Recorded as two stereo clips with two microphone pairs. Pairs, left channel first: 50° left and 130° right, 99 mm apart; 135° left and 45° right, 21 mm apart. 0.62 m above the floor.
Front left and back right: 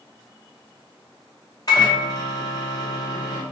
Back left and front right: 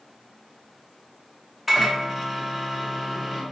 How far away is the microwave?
About 0.6 m.